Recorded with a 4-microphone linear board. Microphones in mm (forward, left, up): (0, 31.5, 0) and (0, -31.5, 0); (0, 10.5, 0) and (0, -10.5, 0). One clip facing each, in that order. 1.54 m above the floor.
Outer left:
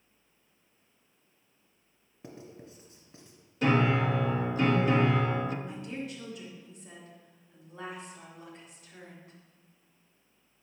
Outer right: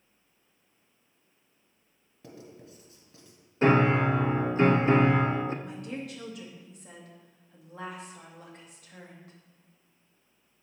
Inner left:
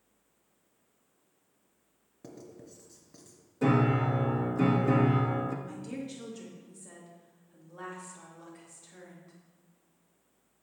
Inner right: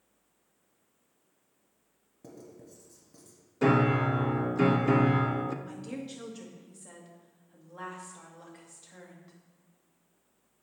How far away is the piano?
About 0.6 m.